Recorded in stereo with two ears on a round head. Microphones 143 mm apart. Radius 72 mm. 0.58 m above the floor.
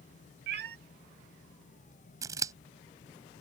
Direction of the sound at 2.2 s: 20° right (ahead or behind).